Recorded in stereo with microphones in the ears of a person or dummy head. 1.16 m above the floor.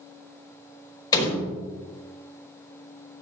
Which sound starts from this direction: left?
A door slam, at 1.1 s.